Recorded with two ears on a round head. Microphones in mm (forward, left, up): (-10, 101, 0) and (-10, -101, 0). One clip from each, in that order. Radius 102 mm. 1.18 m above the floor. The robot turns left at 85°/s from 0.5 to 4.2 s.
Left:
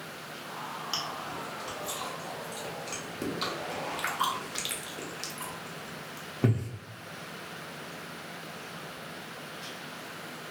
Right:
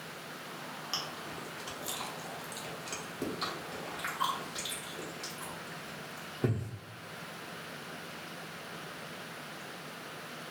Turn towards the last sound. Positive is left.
turn(degrees=30)  # may be behind; listen again after turning